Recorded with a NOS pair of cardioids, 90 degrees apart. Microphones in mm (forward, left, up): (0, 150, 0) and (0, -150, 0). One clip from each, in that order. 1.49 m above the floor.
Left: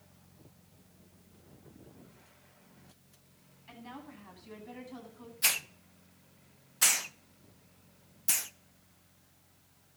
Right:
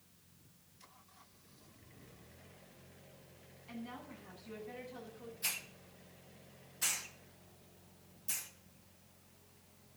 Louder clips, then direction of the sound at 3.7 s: Left 1 dB; 60° left.